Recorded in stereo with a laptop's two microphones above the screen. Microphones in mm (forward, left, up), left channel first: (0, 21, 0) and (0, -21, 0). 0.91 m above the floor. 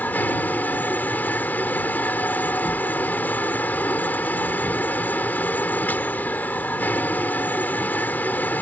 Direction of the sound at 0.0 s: 45° left (ahead or behind).